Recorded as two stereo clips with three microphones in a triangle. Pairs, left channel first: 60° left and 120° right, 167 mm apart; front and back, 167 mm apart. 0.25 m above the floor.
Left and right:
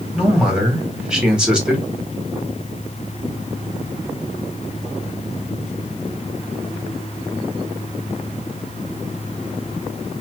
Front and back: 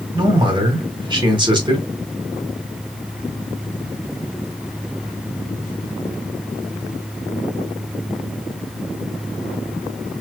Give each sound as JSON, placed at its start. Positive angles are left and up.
{"t": 0.1, "sound": "a man speaking", "azimuth_deg": 160, "distance_m": 1.3}